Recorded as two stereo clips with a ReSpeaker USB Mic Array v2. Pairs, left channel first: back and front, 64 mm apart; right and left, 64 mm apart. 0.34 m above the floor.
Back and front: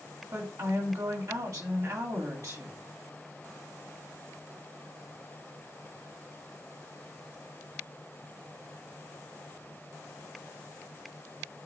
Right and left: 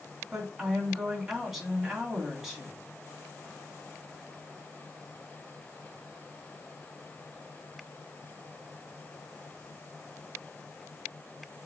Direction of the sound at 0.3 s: 5° left.